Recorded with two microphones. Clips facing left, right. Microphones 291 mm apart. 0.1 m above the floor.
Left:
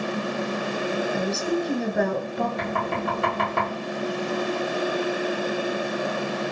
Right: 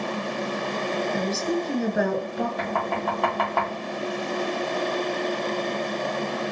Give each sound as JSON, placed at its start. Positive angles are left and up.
{"t": 1.1, "sound": "a woman speaking", "side_deg": -5, "distance_m": 1.1}
{"t": 2.6, "sound": "knocking", "side_deg": 25, "distance_m": 2.0}